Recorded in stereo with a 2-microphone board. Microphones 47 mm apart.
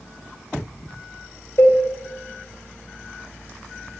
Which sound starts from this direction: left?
A cowbell, at 1.6 s.